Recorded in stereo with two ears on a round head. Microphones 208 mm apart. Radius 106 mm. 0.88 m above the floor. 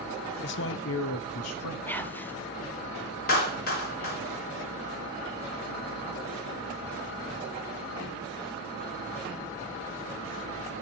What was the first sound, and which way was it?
A man speaking, 45° left (ahead or behind).